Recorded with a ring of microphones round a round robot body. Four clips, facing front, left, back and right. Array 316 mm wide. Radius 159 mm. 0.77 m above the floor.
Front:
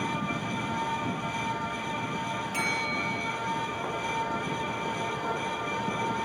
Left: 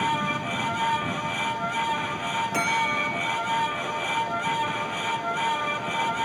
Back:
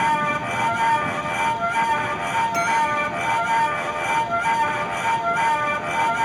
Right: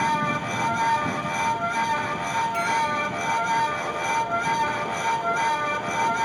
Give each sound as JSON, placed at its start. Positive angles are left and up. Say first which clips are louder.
{"t": 2.5, "sound": "a bell", "louder": "right 2 dB, back 11 dB", "azimuth_deg": 110, "distance_m": 6.5}